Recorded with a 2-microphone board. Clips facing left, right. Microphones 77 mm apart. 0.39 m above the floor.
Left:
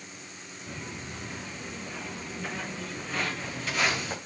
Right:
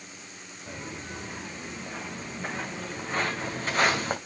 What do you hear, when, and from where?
0.7 s footsteps: 20° right (ahead or behind), 3.5 m; by 4.2 s 45° right (ahead or behind), 1.6 m